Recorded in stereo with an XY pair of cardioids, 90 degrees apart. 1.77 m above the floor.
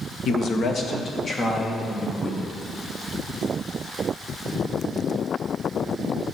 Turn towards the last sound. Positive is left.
turn(degrees=45)